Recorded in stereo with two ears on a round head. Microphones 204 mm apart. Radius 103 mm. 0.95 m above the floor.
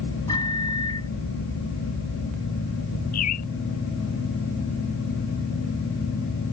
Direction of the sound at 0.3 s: 15° left (ahead or behind).